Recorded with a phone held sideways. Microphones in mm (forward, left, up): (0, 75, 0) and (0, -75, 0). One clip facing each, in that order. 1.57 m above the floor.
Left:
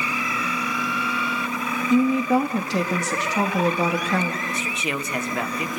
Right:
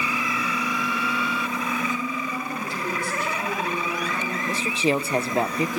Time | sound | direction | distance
1.9 | a woman speaking | 85° left | 3 m
4.5 | a man speaking | 30° right (ahead or behind) | 1.1 m